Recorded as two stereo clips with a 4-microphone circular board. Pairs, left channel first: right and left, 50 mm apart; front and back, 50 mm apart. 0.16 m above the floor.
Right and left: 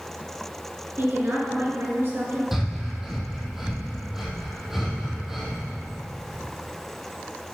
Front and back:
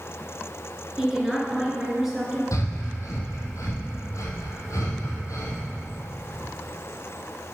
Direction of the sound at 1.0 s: 100° left.